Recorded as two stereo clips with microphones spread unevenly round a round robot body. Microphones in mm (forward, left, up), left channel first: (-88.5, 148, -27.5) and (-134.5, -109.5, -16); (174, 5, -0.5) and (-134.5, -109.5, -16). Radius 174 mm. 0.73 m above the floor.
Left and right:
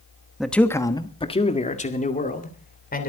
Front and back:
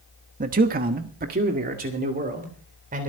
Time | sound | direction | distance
0.4 | a man speaking | 165° left | 1.1 m